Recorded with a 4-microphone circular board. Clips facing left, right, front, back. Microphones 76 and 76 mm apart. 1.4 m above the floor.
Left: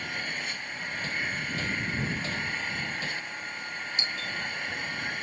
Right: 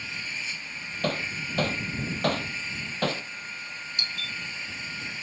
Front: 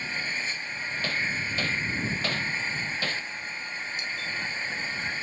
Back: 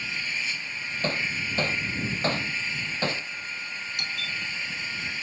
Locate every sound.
0.0 s an engine running: 50° left
1.0 s hammering: 115° right
4.0 s a doorbell: 155° left